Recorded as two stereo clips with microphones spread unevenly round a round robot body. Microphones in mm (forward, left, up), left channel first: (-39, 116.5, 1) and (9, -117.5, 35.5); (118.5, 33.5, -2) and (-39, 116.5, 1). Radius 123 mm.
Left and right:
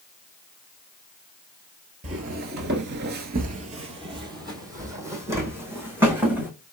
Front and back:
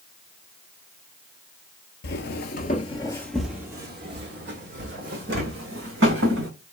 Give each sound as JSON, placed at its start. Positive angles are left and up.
{"t": 2.0, "sound": "footsteps", "azimuth_deg": -25, "distance_m": 0.7}